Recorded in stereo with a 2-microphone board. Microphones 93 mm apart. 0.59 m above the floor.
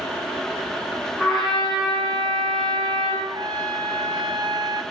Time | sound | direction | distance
1.2 | a trumpet | 5° right (ahead or behind) | 5.5 m
3.2 | a trumpet | 45° right (ahead or behind) | 0.9 m